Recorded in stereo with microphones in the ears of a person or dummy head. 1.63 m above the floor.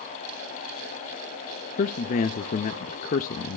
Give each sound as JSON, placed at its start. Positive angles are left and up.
{"t": 1.8, "sound": "a man speaking", "side_deg": 45, "distance_m": 0.7}